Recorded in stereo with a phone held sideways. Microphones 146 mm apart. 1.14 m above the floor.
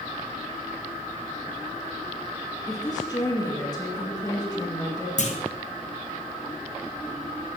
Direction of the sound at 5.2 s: 55° left (ahead or behind).